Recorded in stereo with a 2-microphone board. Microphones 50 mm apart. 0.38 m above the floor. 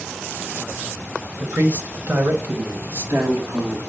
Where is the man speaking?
40° right (ahead or behind), 1.3 m; by 3.8 s 70° right (ahead or behind), 2 m.